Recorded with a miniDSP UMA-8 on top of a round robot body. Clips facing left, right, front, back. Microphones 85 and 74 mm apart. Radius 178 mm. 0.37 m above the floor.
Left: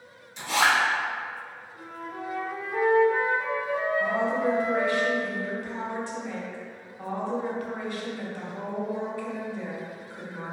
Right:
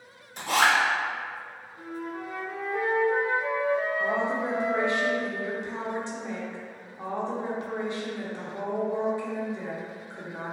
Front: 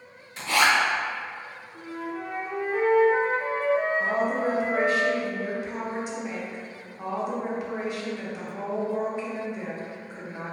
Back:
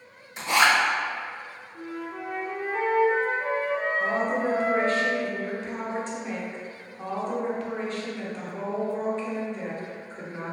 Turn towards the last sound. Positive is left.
turn(degrees=-60)